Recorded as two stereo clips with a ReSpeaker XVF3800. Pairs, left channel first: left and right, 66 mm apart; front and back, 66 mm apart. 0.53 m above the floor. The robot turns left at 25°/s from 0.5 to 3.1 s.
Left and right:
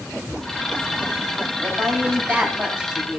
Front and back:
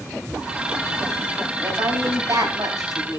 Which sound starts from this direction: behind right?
A woman speaking, at 1.6 s.